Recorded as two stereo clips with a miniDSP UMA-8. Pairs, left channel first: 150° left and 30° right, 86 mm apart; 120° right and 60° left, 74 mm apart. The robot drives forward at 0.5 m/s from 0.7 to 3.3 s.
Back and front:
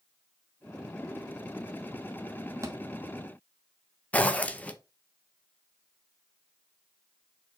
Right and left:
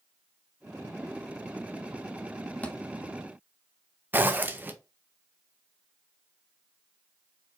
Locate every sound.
2.6 s a thud: 60° right, 1.1 m; by 2.8 s 65° right, 1.1 m
4.1 s a zipper: 95° left, 0.7 m